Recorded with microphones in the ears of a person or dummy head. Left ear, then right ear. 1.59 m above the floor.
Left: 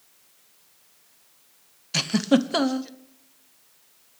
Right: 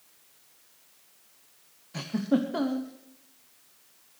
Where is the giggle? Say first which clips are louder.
Left 7 dB; 80° left, 0.8 m.